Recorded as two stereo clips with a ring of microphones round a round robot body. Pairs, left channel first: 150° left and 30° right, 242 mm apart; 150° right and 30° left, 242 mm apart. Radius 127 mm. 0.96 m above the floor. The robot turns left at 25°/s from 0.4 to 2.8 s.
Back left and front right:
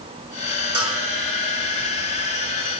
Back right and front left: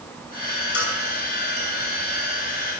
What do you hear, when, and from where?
0.7 s a bell: 105° right, 7.5 m; by 1.1 s 110° right, 7.5 m